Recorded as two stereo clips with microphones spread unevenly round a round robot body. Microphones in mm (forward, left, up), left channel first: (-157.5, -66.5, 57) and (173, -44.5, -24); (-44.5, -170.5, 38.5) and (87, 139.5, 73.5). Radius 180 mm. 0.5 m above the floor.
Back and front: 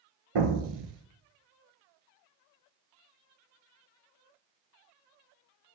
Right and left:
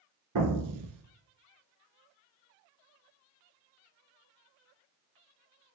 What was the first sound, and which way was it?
An explosion, 35° left.